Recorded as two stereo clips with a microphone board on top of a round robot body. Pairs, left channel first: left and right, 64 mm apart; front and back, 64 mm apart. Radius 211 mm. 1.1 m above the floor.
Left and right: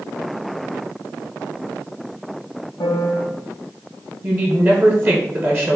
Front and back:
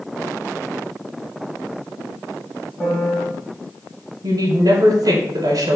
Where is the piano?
80° left, 1.4 m.